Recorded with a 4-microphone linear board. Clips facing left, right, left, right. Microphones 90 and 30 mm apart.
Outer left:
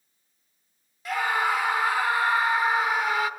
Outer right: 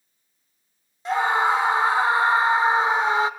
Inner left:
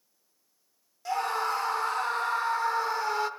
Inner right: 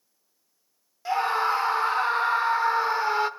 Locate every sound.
1.1 s a scream: 30° right (ahead or behind), 1.1 m